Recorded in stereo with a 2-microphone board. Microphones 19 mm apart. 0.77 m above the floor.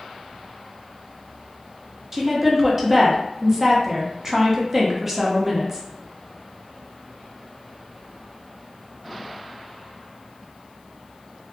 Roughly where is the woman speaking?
Right.